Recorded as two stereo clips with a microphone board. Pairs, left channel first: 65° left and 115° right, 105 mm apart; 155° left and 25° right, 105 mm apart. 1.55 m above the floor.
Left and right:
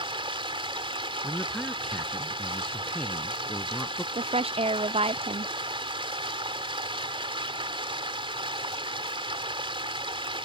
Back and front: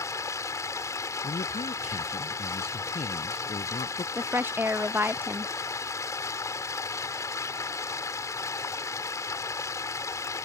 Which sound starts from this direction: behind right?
Running water, at 0.0 s.